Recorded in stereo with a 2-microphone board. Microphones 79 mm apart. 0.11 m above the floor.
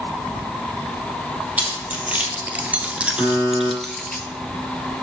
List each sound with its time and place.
1.6 s keys jangling: 20° right (ahead or behind), 2 m; by 4.2 s 10° left (ahead or behind), 1.2 m
3.2 s a buzzer: 40° right (ahead or behind), 4.5 m